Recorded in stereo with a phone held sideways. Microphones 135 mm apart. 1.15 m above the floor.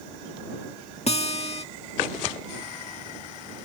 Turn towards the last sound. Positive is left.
turn(degrees=50)  # may be behind; listen again after turning